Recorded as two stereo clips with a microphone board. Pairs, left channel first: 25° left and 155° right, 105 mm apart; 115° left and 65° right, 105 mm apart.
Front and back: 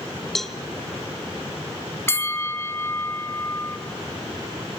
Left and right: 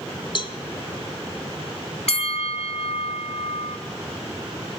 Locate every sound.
0.3 s a cowbell: 110° left, 0.8 m
2.1 s a bell: 90° left, 0.6 m